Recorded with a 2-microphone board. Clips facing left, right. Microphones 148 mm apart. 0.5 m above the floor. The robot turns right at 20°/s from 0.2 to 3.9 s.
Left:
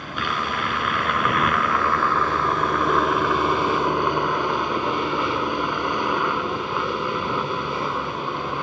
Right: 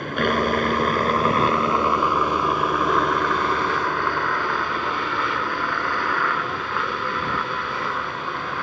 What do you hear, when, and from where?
0.0 s a helicopter: 55° right; by 8.6 s 20° left